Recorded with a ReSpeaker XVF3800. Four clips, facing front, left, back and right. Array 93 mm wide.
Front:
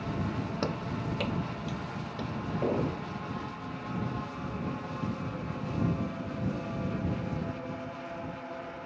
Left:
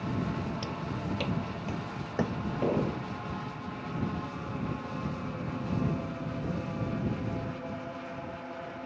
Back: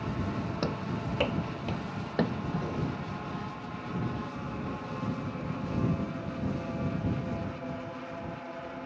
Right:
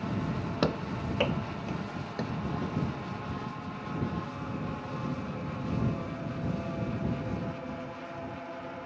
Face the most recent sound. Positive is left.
turn(degrees=50)